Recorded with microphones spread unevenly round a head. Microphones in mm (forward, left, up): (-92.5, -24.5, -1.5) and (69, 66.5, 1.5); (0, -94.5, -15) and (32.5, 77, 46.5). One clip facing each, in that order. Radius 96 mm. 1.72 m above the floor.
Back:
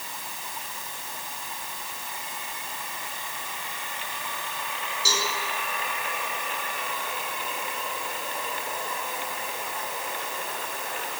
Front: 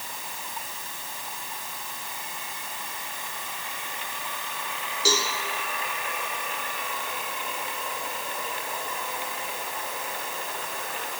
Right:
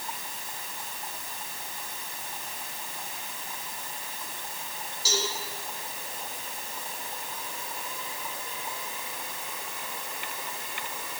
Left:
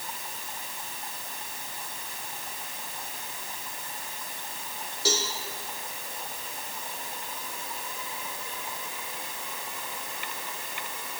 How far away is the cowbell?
About 4 m.